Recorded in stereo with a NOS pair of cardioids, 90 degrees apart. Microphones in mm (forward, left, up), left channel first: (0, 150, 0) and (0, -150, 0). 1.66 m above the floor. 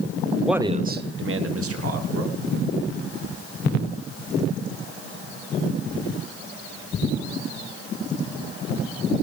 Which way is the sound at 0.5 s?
Straight ahead.